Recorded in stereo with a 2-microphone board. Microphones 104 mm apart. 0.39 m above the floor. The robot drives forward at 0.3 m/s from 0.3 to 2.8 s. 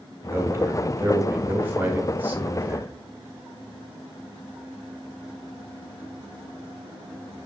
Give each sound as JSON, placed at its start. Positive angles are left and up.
{"t": 0.2, "sound": "a man speaking", "side_deg": -20, "distance_m": 0.9}